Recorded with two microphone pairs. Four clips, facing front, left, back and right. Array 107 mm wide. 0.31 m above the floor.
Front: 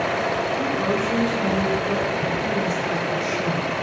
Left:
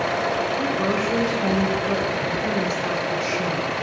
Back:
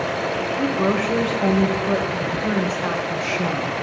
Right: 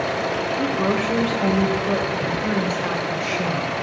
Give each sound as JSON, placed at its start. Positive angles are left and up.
{"t": 0.6, "sound": "a woman speaking", "azimuth_deg": -160, "distance_m": 0.9}